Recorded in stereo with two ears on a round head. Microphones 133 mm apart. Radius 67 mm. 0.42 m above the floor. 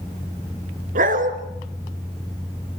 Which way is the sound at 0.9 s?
60° right (ahead or behind).